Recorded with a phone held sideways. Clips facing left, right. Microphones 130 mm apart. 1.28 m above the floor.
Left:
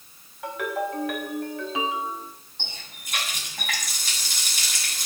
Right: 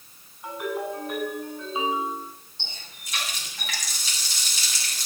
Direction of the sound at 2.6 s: 55° left (ahead or behind).